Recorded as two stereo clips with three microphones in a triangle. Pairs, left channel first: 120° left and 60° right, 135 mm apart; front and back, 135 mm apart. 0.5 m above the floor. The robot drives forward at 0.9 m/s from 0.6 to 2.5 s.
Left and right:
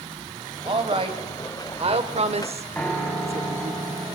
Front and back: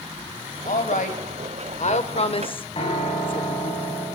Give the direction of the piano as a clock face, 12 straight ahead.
11 o'clock.